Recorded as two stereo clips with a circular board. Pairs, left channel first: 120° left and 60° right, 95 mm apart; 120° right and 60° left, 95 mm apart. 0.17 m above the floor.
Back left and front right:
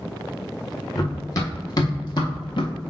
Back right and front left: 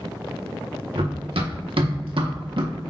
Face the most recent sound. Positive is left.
turn(degrees=95)